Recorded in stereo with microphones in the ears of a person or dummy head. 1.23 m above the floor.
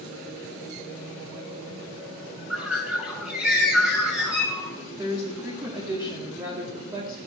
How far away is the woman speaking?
About 2 m.